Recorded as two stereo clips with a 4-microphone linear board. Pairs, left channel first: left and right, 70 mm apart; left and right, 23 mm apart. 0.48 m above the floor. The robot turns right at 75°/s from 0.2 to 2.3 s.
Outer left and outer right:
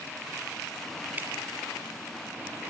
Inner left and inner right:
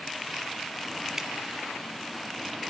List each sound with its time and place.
1.2 s dripping: 25° right (ahead or behind), 1.4 m; by 1.3 s 35° right (ahead or behind), 1.4 m